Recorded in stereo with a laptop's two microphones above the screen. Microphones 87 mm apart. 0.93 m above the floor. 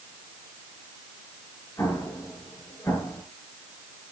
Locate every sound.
1.8 s an explosion: 30° left (ahead or behind), 5 m